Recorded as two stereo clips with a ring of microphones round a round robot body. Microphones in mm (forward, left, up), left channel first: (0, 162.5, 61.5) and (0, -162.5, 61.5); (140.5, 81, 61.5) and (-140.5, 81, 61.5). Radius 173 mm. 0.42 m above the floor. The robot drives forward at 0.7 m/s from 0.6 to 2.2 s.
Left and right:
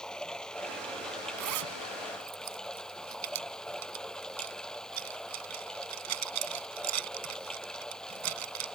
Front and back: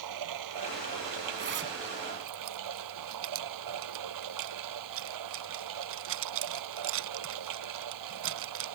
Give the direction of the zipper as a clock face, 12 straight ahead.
4 o'clock.